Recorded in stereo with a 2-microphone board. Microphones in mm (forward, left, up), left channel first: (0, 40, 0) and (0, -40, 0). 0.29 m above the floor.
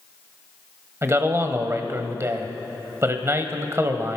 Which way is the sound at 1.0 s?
35° right (ahead or behind).